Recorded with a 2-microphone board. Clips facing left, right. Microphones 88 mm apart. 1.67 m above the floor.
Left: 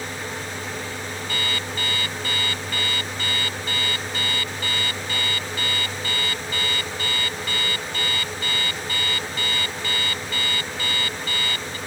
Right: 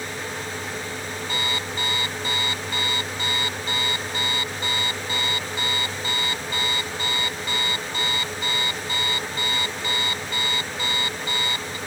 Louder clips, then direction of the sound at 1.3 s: Right 1 dB; 20° right (ahead or behind).